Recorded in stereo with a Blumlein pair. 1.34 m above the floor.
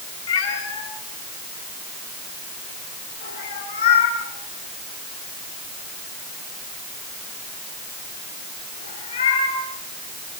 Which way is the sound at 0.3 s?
55° left.